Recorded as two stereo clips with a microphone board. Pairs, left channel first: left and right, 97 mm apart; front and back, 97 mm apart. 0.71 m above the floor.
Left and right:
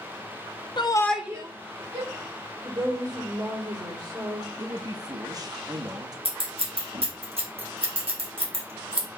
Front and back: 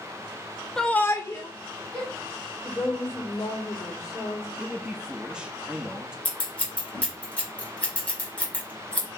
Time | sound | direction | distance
0.8 | a shout | 80° left | 0.7 m
2.6 | a woman speaking | 50° right | 2 m
4.6 | a man speaking | 105° right | 0.6 m
6.2 | scissors | 75° right | 1.7 m